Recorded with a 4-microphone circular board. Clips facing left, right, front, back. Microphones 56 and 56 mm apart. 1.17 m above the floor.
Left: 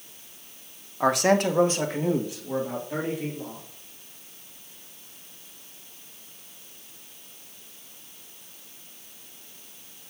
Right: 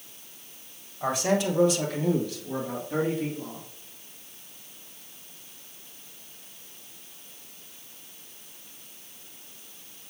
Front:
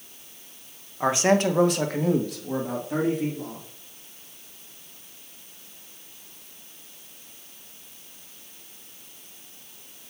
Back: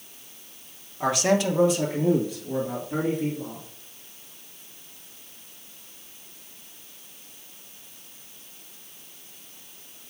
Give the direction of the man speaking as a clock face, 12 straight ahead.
10 o'clock.